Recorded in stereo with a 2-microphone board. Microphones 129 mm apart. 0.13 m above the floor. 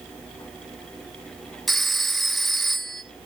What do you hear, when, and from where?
1.7 s a phone ringing: centre (ahead or behind), 0.7 m